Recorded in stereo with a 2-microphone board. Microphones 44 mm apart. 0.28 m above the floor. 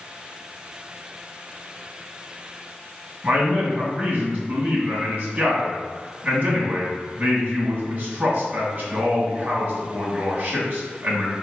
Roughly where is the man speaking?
Right.